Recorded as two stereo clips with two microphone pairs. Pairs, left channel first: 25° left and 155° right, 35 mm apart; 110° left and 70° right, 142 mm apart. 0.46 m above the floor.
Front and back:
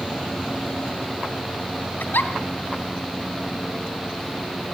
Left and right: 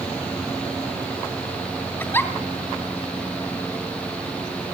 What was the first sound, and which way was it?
A giggle, 40° left.